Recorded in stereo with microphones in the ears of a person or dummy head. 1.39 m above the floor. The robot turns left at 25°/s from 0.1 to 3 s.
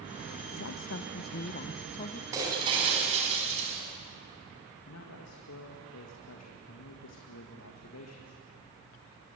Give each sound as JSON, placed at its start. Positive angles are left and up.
{"t": 0.5, "sound": "a woman speaking", "azimuth_deg": 75, "distance_m": 0.9}
{"t": 2.3, "sound": "breaking glass", "side_deg": -20, "distance_m": 5.5}
{"t": 4.8, "sound": "a man speaking", "side_deg": 80, "distance_m": 1.9}